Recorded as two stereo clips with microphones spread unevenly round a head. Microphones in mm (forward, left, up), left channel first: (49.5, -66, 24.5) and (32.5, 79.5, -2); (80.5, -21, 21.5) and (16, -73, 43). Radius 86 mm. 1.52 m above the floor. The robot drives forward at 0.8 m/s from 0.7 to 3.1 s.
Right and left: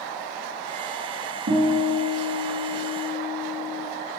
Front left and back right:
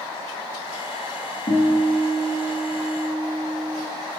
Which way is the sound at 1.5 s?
85° left.